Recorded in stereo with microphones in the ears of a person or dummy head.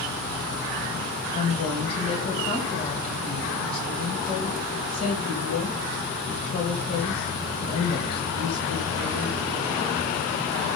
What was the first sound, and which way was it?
A woman speaking, 50° left (ahead or behind).